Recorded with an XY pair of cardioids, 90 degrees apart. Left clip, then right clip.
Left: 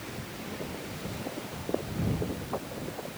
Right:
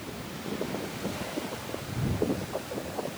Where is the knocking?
No knocking in this recording.